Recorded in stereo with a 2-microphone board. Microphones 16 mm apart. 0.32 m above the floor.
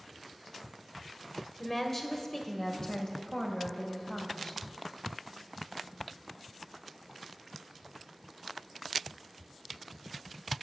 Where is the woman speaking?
15° left (ahead or behind), 1.4 m; by 4.6 s 50° left (ahead or behind), 2.5 m.